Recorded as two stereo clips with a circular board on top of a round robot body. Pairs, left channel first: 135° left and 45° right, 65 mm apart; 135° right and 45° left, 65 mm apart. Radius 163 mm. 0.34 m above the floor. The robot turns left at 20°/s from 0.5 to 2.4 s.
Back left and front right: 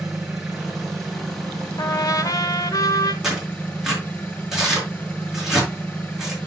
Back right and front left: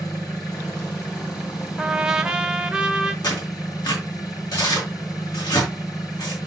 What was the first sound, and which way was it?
An engine running, 120° right.